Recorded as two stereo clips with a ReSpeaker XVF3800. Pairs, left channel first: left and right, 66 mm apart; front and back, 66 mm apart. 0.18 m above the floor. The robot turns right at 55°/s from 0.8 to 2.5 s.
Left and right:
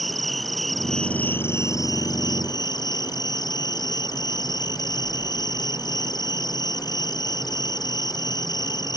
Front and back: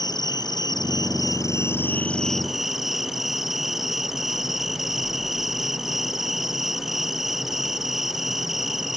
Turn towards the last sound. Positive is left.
turn(degrees=95)